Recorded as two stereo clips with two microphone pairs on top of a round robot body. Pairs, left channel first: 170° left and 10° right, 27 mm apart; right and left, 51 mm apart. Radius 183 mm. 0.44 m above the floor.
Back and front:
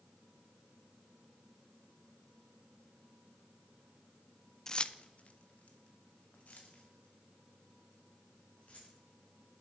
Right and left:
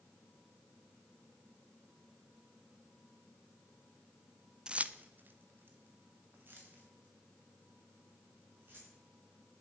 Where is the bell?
No bell in this recording.